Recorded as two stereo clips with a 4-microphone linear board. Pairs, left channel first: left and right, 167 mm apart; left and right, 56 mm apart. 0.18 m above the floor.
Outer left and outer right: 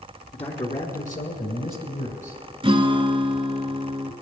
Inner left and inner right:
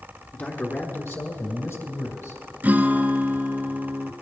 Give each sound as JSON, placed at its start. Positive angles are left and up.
{"t": 0.3, "sound": "a man speaking", "side_deg": 35, "distance_m": 1.7}
{"t": 2.6, "sound": "a guitar", "side_deg": -35, "distance_m": 0.8}